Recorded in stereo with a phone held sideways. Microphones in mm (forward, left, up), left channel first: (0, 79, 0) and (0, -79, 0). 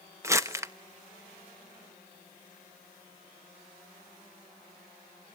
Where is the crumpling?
20° right (ahead or behind), 1.2 m.